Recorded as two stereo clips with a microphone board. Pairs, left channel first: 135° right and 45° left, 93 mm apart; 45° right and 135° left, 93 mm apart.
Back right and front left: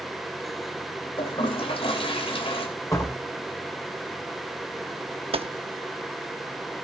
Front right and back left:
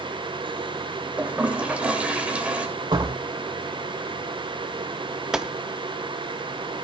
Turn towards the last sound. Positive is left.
turn(degrees=50)